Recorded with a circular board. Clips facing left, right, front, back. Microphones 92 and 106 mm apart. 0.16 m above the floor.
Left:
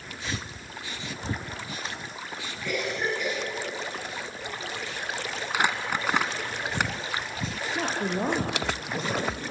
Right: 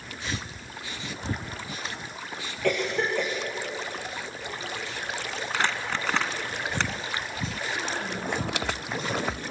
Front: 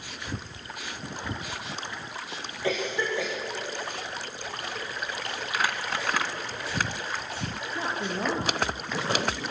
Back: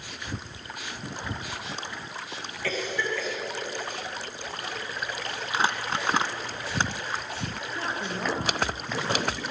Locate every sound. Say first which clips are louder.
2.6 s a cough: right 4 dB, front 2 dB; 70° right, 9.5 m
5.5 s crumpling: left 2 dB, back 3 dB; 155° left, 1.5 m
7.8 s a woman speaking: left 7 dB, front 2 dB; 75° left, 3.5 m